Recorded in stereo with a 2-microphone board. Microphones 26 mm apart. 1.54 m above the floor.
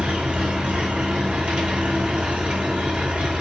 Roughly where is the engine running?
Right.